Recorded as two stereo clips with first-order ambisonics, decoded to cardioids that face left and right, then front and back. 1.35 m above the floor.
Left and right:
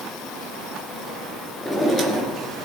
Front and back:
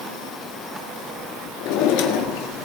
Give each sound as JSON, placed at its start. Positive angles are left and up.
{"t": 1.6, "sound": "a drawer", "azimuth_deg": 0, "distance_m": 1.8}